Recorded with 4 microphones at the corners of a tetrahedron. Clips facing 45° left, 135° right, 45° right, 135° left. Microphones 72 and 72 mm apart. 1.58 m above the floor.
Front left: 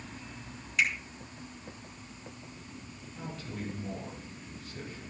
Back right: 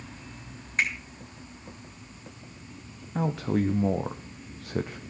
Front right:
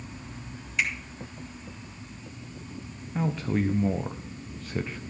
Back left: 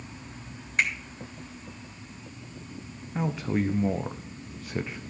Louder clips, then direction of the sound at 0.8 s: Back right 1 dB, back left 2 dB; 175° left.